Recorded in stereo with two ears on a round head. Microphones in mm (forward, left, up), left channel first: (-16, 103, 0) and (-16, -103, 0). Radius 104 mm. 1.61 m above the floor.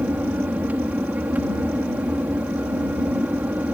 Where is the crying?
No crying in this recording.